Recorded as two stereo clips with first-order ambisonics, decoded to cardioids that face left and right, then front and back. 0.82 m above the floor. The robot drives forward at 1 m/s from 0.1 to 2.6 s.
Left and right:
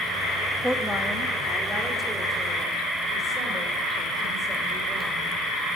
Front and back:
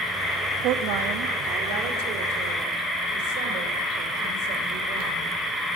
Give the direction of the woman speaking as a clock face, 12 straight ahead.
6 o'clock.